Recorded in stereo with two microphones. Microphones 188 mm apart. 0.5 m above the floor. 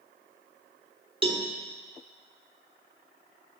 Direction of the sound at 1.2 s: 30° right (ahead or behind).